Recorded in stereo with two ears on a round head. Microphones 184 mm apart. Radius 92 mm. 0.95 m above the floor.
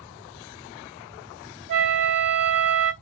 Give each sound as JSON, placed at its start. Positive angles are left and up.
{"t": 1.7, "sound": "a flute", "side_deg": -55, "distance_m": 1.7}